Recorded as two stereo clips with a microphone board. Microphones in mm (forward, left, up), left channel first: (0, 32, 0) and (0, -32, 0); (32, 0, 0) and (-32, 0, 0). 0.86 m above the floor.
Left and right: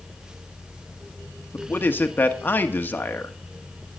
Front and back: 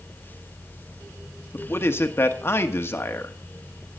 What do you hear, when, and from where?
1.5 s a man speaking: 40° left, 1.2 m